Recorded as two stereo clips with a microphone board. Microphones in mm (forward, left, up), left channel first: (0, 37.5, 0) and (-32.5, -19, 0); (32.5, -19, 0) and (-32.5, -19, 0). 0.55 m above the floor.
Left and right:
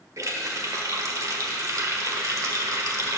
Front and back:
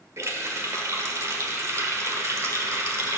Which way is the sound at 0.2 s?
145° right.